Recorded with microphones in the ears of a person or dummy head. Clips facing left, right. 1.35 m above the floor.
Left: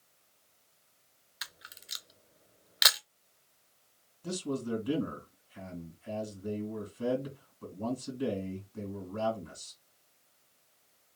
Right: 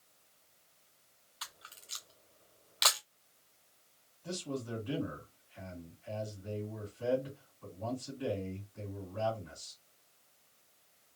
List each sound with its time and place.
1.4 s a camera shutter: 20° left (ahead or behind), 0.6 m
4.2 s a man speaking: 55° left (ahead or behind), 2.5 m